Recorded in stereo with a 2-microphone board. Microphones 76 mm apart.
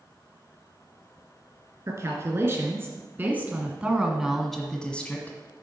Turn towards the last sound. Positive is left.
turn(degrees=25)  # may be behind; listen again after turning